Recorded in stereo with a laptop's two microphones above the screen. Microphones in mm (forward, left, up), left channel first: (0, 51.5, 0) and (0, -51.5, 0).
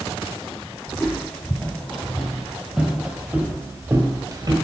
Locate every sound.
0.9 s footsteps: 20° left (ahead or behind), 2.5 m; by 4.5 s 35° right (ahead or behind), 1.5 m